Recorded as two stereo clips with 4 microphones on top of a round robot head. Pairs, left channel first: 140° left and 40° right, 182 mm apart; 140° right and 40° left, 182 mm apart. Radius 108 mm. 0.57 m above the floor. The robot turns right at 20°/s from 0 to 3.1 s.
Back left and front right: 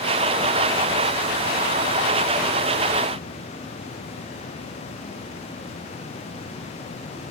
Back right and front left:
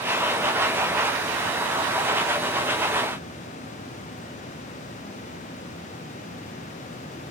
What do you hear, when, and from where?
Only background noise.